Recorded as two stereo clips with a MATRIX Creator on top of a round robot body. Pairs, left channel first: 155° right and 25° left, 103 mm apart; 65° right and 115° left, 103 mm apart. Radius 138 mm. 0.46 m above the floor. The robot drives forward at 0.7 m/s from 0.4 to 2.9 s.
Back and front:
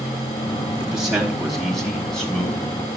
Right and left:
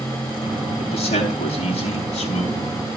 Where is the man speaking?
60° right, 5 m; by 2.8 s 75° right, 4.5 m.